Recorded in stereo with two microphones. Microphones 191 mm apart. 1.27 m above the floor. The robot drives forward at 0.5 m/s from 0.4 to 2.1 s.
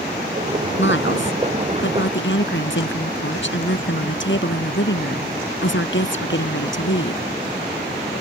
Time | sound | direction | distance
0.8 | a woman speaking | 80° left | ?